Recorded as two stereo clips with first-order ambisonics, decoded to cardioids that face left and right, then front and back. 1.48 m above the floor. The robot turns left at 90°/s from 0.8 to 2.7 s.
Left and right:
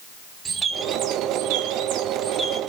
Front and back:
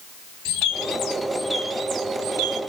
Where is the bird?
20° right, 2.0 m; by 2.6 s straight behind, 2.0 m.